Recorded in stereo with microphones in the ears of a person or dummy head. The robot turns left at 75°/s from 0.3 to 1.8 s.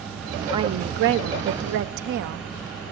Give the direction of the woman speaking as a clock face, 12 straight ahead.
1 o'clock.